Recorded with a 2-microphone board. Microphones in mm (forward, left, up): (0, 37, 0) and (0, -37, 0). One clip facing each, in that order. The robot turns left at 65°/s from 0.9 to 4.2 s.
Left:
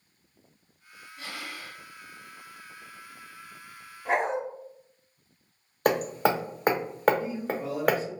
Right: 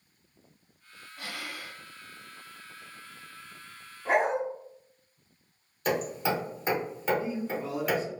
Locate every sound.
1.2 s breathing: 80° right, 1.1 m; by 1.8 s 120° right, 1.1 m
4.0 s a dog barking: centre (ahead or behind), 0.8 m; by 4.4 s 10° right (ahead or behind), 0.8 m
5.8 s hammering: 70° left (ahead or behind), 0.5 m
7.2 s a man speaking: 10° left (ahead or behind), 1.0 m